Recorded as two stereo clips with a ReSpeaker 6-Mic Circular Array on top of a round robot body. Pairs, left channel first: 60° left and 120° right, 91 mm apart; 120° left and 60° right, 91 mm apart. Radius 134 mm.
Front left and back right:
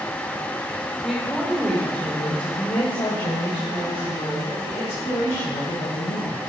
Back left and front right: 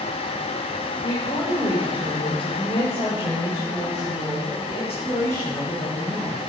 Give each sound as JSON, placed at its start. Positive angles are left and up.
{"t": 1.0, "sound": "a woman speaking", "azimuth_deg": 155, "distance_m": 2.5}